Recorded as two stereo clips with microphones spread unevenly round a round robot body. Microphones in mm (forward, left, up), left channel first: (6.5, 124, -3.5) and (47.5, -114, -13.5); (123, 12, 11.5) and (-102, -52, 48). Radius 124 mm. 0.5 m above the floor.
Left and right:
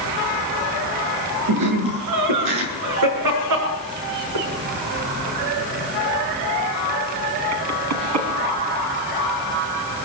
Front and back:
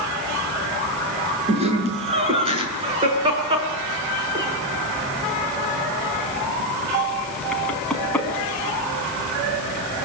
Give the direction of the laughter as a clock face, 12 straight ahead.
3 o'clock.